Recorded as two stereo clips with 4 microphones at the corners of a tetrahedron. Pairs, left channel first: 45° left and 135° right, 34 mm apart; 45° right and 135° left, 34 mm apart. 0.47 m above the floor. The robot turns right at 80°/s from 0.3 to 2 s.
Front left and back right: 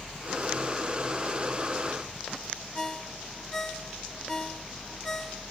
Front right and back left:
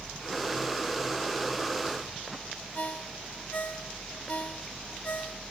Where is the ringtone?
25° right, 1.3 m.